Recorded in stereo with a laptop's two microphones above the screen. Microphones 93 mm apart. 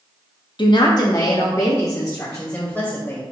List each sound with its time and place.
0.6 s a woman speaking: 55° left (ahead or behind), 0.9 m; by 3.2 s 25° left (ahead or behind), 3 m